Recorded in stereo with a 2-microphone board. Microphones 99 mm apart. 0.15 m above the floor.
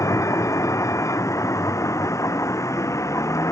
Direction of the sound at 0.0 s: 30° left (ahead or behind).